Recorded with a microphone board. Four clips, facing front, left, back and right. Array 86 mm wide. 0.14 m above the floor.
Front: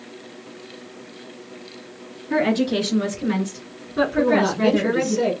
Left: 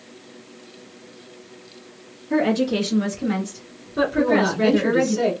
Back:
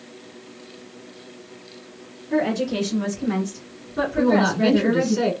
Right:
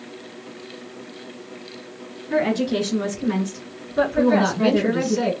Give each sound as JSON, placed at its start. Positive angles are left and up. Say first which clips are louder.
{"t": 2.3, "sound": "a woman speaking", "louder": "left 1 dB, front 2 dB", "azimuth_deg": -15, "distance_m": 2.0}
{"t": 4.2, "sound": "a woman speaking", "louder": "even, back 1 dB", "azimuth_deg": -155, "distance_m": 1.5}